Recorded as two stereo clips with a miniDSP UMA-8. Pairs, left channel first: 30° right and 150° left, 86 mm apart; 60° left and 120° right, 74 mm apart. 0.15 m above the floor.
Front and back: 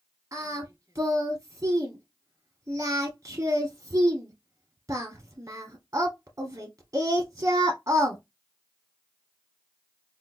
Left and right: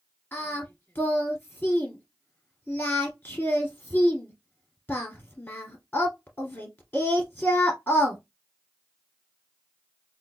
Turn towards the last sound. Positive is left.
turn(degrees=115)